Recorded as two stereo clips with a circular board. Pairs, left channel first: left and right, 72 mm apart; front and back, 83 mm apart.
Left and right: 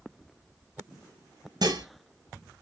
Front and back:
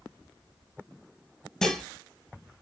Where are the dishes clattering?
85° right, 2 m.